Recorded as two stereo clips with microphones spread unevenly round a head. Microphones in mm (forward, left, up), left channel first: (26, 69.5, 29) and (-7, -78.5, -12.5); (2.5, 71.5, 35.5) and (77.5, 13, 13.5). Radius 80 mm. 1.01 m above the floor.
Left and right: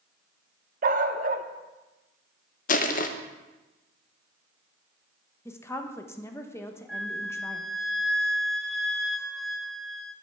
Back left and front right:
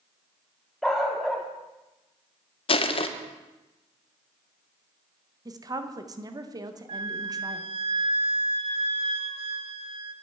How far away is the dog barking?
About 0.6 m.